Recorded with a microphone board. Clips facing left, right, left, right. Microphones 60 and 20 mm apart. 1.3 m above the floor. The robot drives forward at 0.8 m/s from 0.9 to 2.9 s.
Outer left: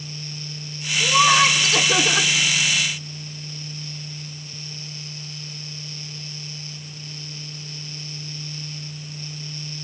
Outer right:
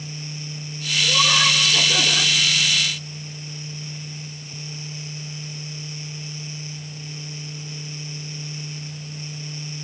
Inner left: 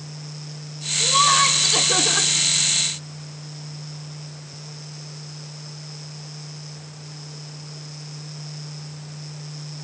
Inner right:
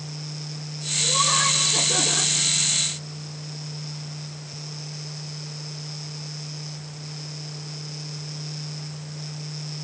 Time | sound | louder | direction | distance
1.0 | laughter | outer left 4 dB, inner left 5 dB | 50° left (ahead or behind) | 4 m